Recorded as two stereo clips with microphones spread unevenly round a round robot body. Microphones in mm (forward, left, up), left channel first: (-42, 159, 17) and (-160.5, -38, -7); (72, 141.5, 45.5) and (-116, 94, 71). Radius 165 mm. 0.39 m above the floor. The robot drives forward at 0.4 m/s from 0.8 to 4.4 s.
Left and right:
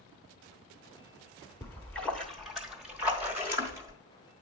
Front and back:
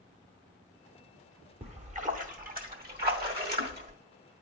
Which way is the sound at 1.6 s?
140° left.